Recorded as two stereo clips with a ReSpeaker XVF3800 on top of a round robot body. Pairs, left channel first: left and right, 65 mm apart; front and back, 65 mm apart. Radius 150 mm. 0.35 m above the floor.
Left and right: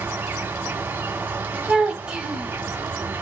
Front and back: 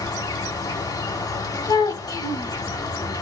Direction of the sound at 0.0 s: 25° right.